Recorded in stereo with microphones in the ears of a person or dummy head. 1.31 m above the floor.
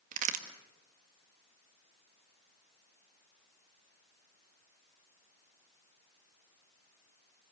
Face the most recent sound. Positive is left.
turn(degrees=-45)  # may be behind; listen again after turning